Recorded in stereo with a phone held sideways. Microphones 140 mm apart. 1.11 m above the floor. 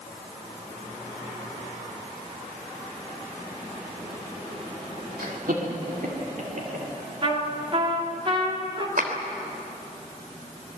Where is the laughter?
85° right, 2.5 m; by 6.9 s 60° right (ahead or behind), 3.5 m.